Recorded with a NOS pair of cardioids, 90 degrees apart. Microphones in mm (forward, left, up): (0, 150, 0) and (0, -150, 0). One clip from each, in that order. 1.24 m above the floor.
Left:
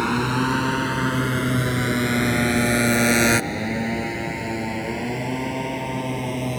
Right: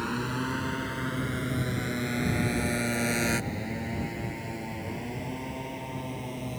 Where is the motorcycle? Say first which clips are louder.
Left 10 dB; 65° left; by 6.6 s 70° left.